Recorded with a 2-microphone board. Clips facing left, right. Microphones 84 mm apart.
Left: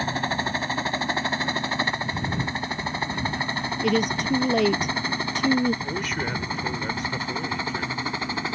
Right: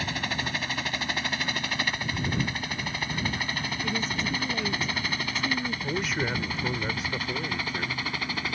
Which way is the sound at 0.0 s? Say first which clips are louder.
Left 5 dB; 35° left (ahead or behind).